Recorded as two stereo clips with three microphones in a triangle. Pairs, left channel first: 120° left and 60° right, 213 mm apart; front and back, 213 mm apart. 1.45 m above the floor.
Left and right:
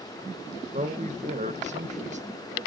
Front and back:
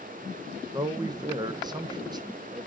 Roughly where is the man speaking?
Right.